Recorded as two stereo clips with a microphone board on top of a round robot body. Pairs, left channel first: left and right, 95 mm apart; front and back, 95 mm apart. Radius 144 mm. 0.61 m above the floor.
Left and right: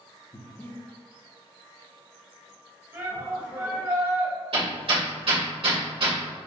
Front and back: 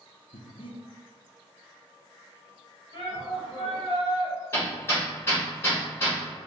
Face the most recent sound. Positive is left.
turn(degrees=-65)